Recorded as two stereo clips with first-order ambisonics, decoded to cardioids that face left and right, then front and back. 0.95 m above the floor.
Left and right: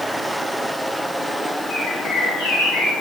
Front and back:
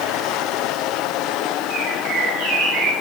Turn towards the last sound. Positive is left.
turn(degrees=145)